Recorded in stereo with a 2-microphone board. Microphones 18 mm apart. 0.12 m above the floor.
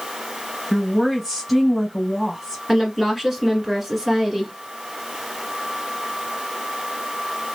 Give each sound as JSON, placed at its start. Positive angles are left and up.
{"t": 0.7, "sound": "a woman speaking", "side_deg": -15, "distance_m": 2.0}
{"t": 2.7, "sound": "a woman speaking", "side_deg": -15, "distance_m": 1.4}